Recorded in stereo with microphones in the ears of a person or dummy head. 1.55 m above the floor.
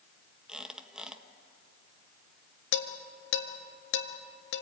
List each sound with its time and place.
0.5 s a squeak: centre (ahead or behind), 1.4 m
2.7 s dishes clattering: 70° left (ahead or behind), 1.8 m